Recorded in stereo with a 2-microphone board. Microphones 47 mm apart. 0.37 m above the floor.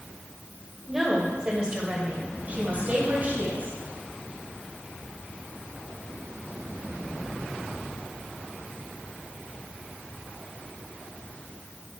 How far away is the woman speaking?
About 1.7 m.